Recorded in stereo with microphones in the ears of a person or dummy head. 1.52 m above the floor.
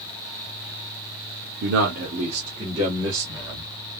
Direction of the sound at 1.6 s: 55° right (ahead or behind).